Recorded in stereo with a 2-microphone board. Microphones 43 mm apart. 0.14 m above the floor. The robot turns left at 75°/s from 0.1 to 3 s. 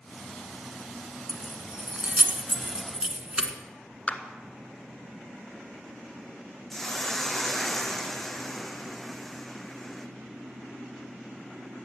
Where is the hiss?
5° left (ahead or behind), 1.4 m.